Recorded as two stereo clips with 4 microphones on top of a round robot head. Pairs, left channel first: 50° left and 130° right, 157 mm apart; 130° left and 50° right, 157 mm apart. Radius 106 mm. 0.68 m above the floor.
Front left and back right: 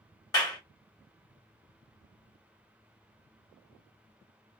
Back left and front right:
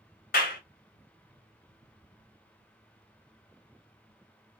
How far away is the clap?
About 1.5 m.